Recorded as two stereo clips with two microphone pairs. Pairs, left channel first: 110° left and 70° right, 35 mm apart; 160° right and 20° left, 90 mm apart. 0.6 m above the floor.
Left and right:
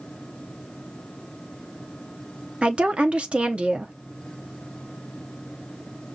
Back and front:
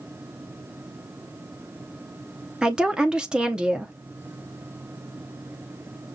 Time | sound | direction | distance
2.6 | a woman speaking | 55° right | 0.7 m